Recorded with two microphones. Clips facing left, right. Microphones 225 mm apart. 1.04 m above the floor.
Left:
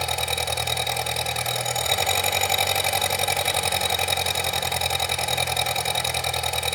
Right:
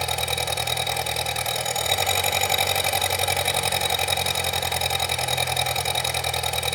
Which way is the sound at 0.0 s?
Centre (ahead or behind).